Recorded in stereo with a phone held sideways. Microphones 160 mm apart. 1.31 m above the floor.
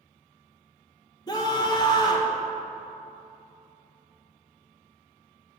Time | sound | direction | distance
1.3 | a scream | 25° left (ahead or behind) | 1.6 m